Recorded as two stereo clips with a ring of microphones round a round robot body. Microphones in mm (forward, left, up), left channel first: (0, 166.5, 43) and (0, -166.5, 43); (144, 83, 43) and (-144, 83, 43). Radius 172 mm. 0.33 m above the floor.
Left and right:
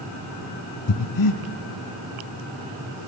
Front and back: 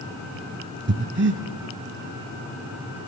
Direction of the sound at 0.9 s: 125° left.